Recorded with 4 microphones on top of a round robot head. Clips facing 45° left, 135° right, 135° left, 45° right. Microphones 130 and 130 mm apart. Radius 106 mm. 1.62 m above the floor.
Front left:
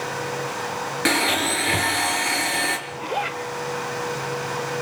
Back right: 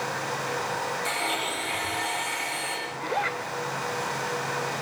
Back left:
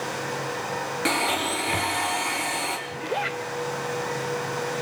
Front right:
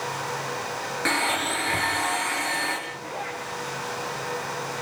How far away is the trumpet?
I don't hear a trumpet.